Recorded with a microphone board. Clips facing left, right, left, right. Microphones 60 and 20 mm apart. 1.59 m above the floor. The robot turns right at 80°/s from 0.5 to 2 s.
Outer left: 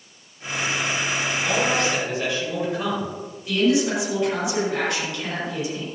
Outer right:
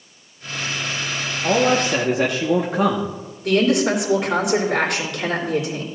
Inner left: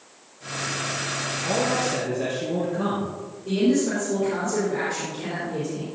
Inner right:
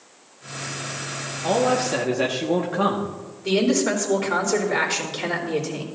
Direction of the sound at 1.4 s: 145° right.